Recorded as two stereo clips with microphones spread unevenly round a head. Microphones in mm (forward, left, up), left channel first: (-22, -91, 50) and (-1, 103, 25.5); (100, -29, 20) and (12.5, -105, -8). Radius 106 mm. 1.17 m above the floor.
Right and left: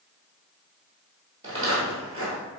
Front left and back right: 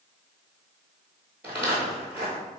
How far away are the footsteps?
About 1.2 m.